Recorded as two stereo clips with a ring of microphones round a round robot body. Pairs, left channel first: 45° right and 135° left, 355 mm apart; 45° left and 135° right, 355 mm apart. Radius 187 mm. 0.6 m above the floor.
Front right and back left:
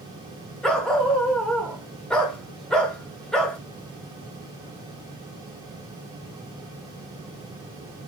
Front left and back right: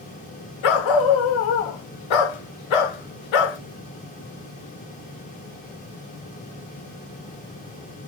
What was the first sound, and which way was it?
A dog barking, 45° left.